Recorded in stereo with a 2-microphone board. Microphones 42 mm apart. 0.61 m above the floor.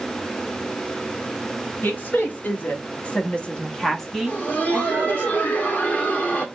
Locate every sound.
1.8 s a woman speaking: 55° left (ahead or behind), 1.4 m; by 5.3 s 30° right (ahead or behind), 0.9 m
4.3 s laughter: 40° left (ahead or behind), 1.4 m